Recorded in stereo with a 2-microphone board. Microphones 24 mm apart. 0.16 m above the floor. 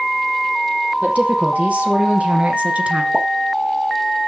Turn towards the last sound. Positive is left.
turn(degrees=-20)  # may be behind; listen again after turning